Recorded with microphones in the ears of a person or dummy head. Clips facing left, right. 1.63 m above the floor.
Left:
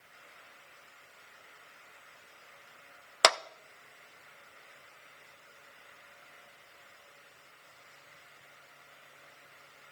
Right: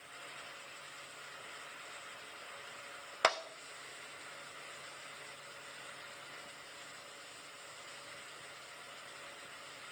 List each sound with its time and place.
3.2 s a clap: 60° left (ahead or behind), 0.5 m